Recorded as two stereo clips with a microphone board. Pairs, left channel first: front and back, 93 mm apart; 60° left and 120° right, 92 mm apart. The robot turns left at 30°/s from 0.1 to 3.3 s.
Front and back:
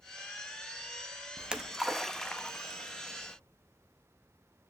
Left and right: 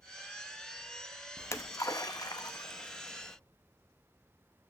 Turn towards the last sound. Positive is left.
turn(degrees=45)